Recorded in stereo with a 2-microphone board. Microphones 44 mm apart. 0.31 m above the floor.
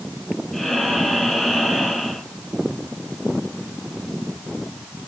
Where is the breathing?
5° left (ahead or behind), 2.0 m.